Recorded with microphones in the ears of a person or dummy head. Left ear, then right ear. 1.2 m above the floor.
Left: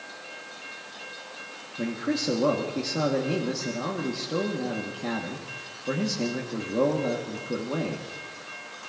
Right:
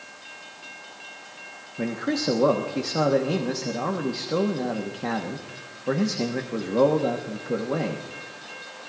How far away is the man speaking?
About 1.3 m.